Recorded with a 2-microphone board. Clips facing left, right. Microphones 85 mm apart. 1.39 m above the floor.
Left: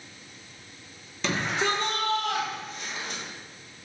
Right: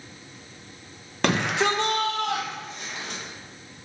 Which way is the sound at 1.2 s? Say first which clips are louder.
Right 4 dB; 65° right (ahead or behind).